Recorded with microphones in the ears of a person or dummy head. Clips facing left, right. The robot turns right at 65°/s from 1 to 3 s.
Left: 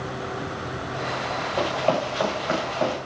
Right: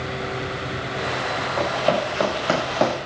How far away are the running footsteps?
About 7 m.